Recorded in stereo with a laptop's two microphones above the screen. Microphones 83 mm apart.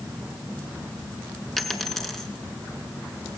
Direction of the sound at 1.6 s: 5° left (ahead or behind).